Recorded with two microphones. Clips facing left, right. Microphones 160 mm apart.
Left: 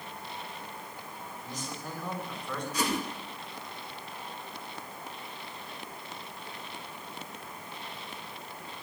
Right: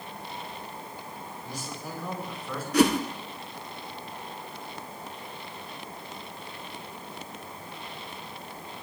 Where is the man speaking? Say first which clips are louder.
Right 1 dB; 10° right (ahead or behind), 6 m; by 2.6 s 5° right (ahead or behind), 6.5 m.